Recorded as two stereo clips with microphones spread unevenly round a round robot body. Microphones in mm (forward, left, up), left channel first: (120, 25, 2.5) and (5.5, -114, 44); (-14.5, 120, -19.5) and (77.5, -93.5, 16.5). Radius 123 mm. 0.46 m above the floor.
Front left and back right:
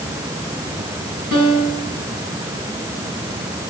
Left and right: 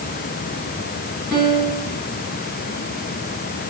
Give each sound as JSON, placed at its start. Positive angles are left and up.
{"t": 1.3, "sound": "a piano", "azimuth_deg": -160, "distance_m": 5.0}